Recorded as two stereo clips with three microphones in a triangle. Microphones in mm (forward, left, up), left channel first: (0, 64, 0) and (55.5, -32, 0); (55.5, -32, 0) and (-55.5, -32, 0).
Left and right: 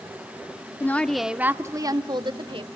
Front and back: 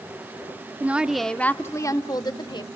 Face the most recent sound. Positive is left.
turn(degrees=-40)